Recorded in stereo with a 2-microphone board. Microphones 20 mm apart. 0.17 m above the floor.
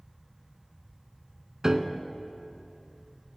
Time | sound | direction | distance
1.6 | a piano | 35° right (ahead or behind) | 0.7 m